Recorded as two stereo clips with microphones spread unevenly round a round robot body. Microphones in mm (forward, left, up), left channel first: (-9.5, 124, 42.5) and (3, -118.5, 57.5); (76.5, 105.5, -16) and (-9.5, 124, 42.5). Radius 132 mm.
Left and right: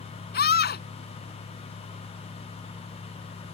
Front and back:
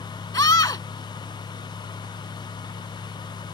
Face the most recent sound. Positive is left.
turn(degrees=40)